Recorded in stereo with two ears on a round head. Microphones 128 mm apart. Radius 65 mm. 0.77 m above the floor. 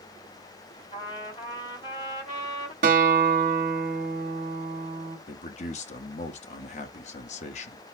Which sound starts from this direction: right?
A guitar, at 2.8 s.